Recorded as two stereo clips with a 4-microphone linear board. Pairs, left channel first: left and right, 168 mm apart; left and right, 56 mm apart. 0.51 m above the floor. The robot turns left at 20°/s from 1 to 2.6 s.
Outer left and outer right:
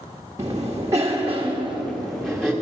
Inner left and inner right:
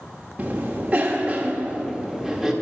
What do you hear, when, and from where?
0.4 s a cough: 20° right (ahead or behind), 1.0 m; by 2.5 s centre (ahead or behind), 1.0 m